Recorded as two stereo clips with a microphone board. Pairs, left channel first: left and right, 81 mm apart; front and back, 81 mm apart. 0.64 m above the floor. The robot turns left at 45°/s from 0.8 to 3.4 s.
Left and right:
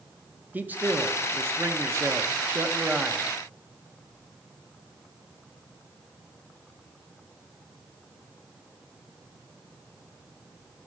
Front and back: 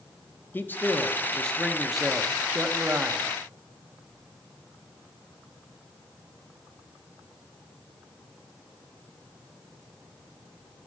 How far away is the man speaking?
About 0.8 m.